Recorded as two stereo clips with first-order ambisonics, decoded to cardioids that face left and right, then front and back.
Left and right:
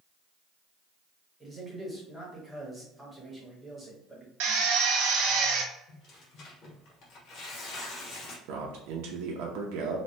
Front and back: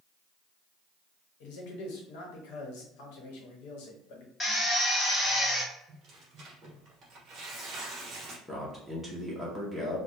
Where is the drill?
75° right, 0.7 m.